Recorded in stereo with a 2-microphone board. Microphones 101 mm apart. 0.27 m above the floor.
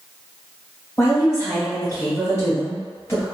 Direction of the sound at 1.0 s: 25° left (ahead or behind).